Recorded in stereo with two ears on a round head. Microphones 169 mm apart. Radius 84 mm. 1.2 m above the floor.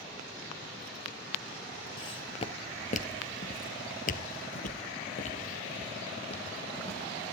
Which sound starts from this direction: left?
Footsteps, at 2.0 s.